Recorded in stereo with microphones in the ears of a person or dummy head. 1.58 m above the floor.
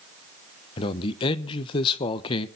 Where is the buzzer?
I don't hear a buzzer.